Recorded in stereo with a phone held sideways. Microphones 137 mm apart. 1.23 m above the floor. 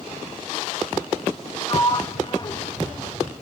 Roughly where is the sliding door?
Left.